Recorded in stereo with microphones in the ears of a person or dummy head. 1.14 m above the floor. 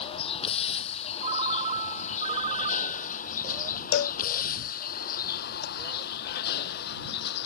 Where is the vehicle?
30° left (ahead or behind); by 7.5 s 65° left (ahead or behind).